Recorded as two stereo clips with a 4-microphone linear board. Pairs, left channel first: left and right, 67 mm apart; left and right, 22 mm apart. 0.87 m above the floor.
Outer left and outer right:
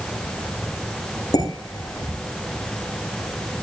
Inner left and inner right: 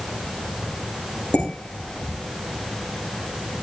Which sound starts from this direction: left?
Dishes clattering, at 1.3 s.